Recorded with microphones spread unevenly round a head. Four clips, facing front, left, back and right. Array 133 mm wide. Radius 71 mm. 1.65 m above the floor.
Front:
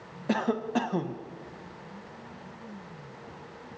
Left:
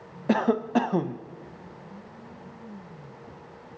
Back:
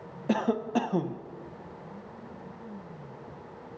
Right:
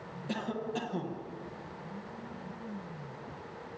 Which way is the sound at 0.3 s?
75° left.